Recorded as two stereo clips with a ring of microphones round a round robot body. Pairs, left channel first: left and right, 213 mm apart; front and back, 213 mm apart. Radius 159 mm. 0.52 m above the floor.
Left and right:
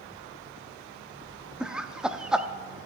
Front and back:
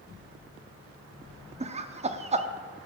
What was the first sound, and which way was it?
Laughter, 175° right.